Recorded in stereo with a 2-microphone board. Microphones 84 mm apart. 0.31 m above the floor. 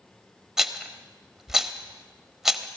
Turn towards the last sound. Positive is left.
turn(degrees=-5)  # may be behind; listen again after turning